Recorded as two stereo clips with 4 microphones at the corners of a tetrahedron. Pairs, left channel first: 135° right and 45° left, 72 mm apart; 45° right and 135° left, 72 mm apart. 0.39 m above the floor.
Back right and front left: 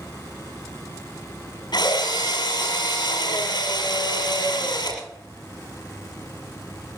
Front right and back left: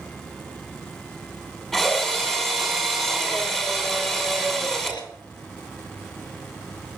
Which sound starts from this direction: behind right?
A drill, at 1.7 s.